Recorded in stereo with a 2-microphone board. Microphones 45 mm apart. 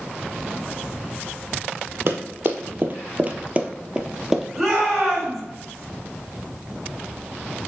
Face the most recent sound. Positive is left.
turn(degrees=0)  # may be behind; listen again after turning